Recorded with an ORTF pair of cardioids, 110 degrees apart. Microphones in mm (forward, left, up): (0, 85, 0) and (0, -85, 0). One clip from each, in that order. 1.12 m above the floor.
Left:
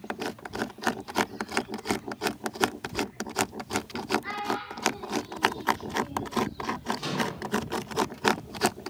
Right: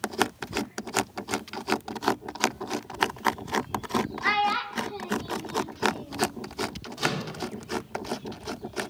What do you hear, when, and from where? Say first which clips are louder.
4.2 s a child speaking: right 7 dB; 70° right, 0.6 m; by 6.3 s straight ahead, 1.1 m
7.0 s a microwave: right 1 dB; 45° right, 2.5 m